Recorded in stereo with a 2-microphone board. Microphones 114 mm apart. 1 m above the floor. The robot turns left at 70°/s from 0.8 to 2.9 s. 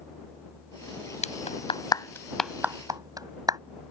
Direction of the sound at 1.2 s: 85° left.